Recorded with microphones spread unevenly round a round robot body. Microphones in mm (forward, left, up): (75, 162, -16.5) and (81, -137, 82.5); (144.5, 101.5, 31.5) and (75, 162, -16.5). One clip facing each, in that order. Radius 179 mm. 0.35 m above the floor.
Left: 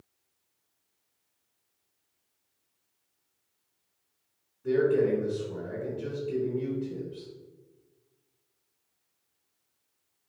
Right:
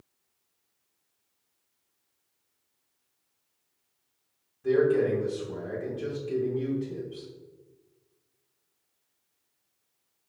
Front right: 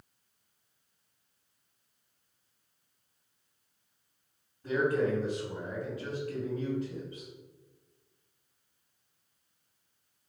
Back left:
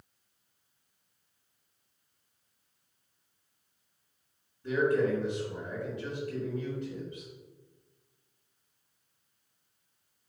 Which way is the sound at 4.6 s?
115° right.